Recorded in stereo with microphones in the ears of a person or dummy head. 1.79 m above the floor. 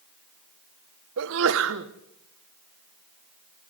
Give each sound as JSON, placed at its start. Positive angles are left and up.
{"t": 1.2, "sound": "a sneeze", "side_deg": -70, "distance_m": 1.7}